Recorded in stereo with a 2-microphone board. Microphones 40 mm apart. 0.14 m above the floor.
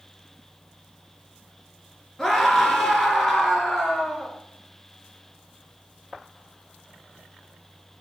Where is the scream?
10° left (ahead or behind), 2.0 m.